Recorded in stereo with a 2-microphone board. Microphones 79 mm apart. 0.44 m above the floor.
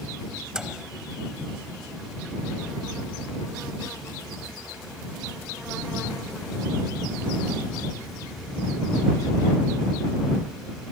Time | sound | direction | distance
0.5 | a microwave | 10° right (ahead or behind) | ?